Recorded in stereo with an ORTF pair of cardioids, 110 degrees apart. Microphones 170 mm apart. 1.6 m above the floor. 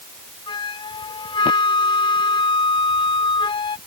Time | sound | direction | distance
0.5 | a flute | 25° left | ?